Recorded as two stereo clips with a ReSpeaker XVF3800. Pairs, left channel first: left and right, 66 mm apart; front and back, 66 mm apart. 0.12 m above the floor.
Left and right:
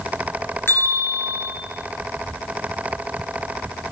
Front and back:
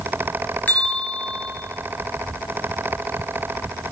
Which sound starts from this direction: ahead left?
A bell, at 0.7 s.